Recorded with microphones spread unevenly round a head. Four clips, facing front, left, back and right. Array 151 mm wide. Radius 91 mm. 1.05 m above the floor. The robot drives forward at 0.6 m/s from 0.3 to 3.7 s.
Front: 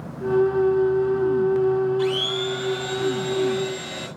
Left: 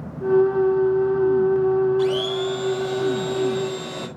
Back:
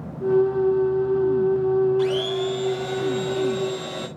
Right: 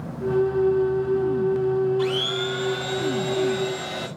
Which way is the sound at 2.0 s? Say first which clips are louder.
Left 3 dB, back 2 dB; 145° left.